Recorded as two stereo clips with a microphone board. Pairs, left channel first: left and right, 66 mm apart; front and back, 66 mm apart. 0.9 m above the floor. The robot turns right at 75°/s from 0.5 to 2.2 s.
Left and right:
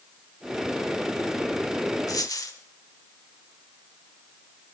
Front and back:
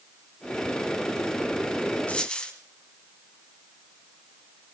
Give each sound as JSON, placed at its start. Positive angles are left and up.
{"t": 2.1, "sound": "a dropped coin", "azimuth_deg": 65, "distance_m": 1.8}